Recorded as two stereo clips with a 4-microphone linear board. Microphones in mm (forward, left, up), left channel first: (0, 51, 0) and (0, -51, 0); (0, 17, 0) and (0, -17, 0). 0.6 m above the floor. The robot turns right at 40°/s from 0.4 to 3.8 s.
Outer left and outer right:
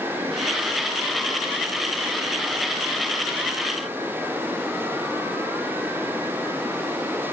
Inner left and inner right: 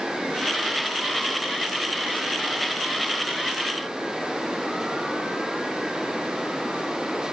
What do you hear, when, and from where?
Only background noise.